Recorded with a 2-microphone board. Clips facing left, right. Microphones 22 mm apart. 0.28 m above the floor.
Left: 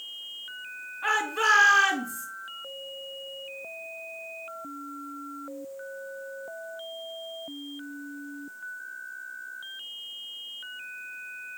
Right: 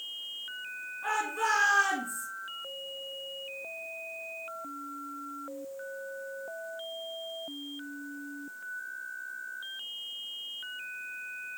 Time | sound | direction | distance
1.0 | a shout | 60° left (ahead or behind) | 3.5 m